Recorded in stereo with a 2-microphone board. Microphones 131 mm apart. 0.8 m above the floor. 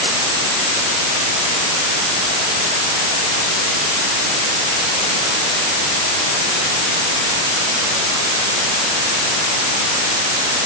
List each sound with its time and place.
Only background noise.